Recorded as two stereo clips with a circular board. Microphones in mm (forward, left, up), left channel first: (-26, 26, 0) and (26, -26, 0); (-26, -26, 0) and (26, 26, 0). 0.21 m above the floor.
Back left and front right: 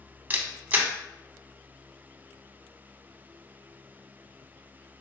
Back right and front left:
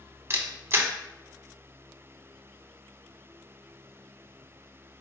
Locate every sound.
0.3 s a camera shutter: 10° left, 0.6 m